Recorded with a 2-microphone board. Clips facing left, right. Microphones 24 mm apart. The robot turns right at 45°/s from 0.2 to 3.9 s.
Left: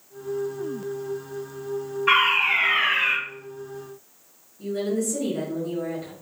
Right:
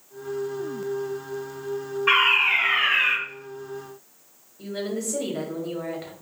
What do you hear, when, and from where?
2.1 s a fire alarm: 15° right (ahead or behind), 1.9 m; by 3.2 s centre (ahead or behind), 1.9 m
4.6 s a woman speaking: 40° right (ahead or behind), 1.1 m